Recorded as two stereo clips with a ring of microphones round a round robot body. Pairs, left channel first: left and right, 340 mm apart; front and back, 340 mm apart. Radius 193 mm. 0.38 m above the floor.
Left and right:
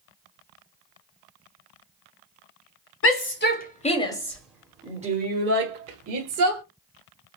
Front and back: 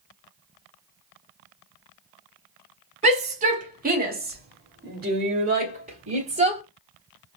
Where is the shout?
115° left, 1.9 m; by 6.6 s 115° right, 2.5 m.